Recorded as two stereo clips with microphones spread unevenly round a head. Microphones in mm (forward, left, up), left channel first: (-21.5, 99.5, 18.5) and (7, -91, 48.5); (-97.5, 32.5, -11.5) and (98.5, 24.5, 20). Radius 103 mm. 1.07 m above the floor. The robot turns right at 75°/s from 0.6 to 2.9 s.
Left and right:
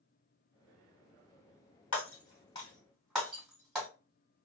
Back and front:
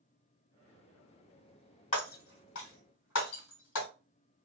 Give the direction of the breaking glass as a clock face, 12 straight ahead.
8 o'clock.